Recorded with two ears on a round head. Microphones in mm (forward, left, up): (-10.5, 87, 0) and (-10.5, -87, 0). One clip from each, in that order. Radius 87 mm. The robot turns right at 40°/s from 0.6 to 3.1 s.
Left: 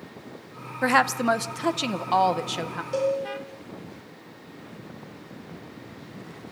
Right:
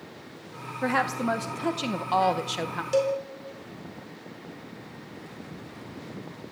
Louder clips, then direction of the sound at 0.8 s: Left 5 dB; 115° left.